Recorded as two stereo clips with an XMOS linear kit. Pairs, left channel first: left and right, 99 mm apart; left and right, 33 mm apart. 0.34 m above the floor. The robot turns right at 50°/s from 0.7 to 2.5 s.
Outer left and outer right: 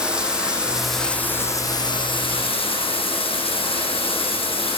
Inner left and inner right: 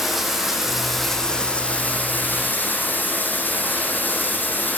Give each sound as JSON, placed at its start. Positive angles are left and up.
{"t": 0.0, "sound": "running water", "azimuth_deg": -10, "distance_m": 9.5}